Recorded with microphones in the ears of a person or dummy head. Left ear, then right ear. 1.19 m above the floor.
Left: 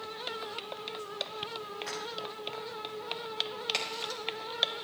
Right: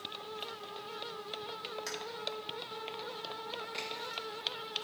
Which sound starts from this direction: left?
A crack, at 3.7 s.